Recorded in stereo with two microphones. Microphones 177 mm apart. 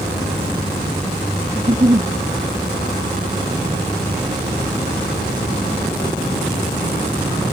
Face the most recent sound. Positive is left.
turn(degrees=-35)  # may be behind; listen again after turning